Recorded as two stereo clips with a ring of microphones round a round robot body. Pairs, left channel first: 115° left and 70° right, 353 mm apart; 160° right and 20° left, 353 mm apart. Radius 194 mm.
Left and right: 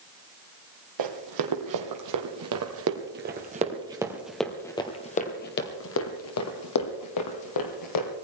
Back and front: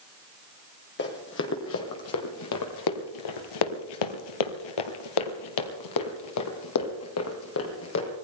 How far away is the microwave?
No microwave in this recording.